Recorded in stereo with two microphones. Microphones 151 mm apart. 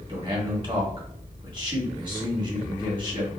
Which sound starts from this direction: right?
A man speaking, at 0.1 s.